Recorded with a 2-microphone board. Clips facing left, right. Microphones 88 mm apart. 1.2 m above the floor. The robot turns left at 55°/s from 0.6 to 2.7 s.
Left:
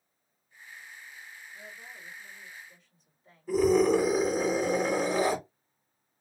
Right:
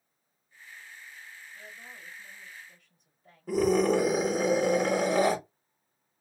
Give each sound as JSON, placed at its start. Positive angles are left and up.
{"t": 1.5, "sound": "a woman speaking", "azimuth_deg": 5, "distance_m": 1.8}
{"t": 3.5, "sound": "a scream", "side_deg": -55, "distance_m": 1.9}